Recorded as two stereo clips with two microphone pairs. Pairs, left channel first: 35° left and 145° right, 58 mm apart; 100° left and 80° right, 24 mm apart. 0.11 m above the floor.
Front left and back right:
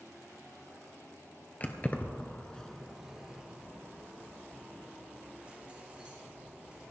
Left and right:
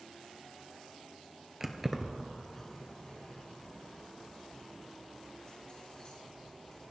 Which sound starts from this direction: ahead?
Keys jangling, at 1.6 s.